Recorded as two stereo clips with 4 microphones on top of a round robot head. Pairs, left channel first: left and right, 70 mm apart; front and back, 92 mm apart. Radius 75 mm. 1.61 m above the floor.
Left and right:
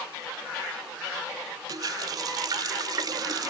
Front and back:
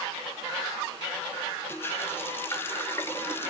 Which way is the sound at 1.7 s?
70° right.